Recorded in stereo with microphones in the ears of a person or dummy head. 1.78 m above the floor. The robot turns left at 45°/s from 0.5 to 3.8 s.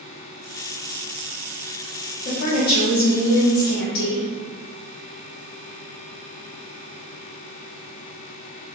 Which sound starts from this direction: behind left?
A woman speaking, at 2.2 s.